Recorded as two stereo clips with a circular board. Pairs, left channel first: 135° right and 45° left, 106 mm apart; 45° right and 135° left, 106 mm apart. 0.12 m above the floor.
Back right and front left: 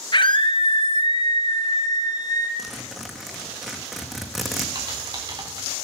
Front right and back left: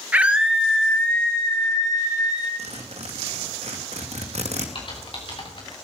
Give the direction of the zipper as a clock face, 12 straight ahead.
7 o'clock.